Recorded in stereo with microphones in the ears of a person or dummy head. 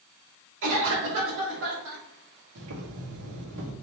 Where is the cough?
65° right (ahead or behind), 2 m.